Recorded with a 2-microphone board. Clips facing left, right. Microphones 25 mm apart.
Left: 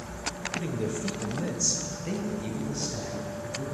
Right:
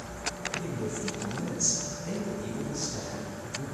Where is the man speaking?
50° left (ahead or behind), 1.2 m; by 3.6 s 15° left (ahead or behind), 2 m.